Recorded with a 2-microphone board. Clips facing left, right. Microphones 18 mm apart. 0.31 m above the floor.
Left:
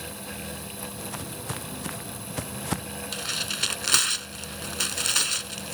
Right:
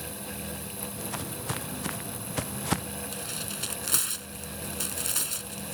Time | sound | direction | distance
1.0 | footsteps | 10° right (ahead or behind) | ?
3.1 | tearing paper | 45° left (ahead or behind) | ?